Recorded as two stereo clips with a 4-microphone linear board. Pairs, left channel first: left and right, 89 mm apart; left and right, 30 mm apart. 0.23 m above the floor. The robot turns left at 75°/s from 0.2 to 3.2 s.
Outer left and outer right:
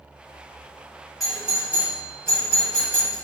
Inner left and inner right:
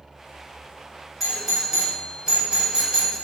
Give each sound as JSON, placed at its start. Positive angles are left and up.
{"t": 1.2, "sound": "a doorbell", "side_deg": 5, "distance_m": 1.7}